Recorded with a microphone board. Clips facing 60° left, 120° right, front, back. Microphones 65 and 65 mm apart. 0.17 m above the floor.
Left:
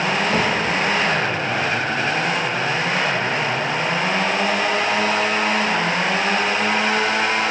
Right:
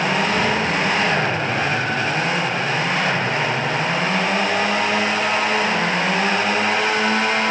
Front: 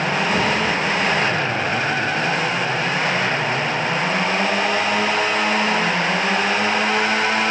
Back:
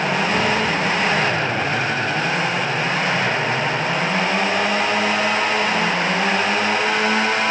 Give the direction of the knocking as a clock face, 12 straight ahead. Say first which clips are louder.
Even, even; 9 o'clock.